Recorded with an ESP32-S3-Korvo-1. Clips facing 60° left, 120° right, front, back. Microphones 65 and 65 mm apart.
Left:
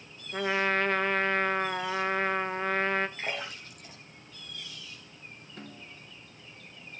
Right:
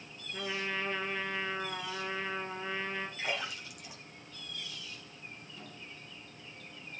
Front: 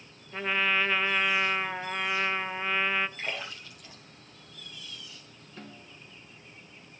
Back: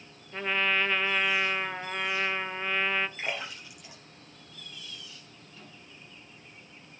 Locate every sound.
0.3 s a trumpet: 85° left, 0.8 m
3.2 s a splash: 105° left, 5 m
5.6 s a snare drum: 35° left, 2 m